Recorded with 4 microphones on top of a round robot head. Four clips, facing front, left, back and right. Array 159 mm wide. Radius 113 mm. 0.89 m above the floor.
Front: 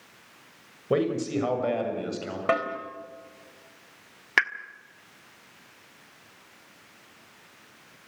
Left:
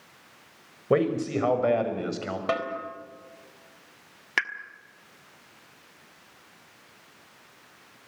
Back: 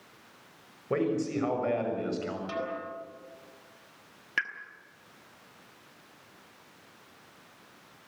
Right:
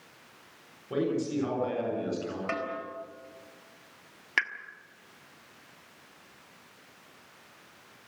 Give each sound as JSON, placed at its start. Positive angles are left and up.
{"t": 0.9, "sound": "a man speaking", "azimuth_deg": 70, "distance_m": 6.0}
{"t": 2.5, "sound": "a snare drum", "azimuth_deg": 25, "distance_m": 4.0}
{"t": 4.4, "sound": "a pop", "azimuth_deg": 5, "distance_m": 1.4}